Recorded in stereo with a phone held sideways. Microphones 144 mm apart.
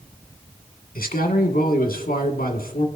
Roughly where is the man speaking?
Left.